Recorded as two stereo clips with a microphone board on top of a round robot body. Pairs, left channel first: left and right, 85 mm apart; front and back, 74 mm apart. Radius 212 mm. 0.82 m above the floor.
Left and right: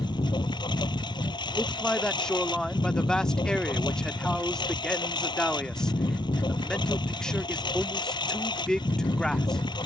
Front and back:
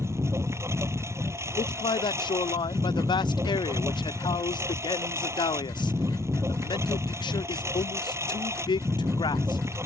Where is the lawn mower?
125° left.